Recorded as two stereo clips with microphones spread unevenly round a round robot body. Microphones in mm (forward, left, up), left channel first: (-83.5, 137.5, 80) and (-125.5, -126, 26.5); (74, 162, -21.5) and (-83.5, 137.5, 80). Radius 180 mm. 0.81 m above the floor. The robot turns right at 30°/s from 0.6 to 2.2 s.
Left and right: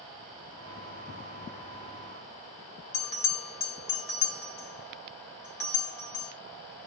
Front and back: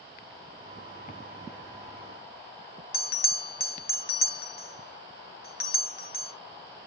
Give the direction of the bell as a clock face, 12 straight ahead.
10 o'clock.